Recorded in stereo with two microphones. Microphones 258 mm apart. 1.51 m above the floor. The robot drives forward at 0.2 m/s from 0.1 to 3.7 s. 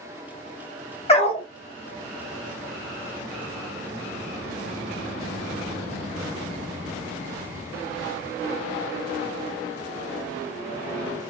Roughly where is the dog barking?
Left.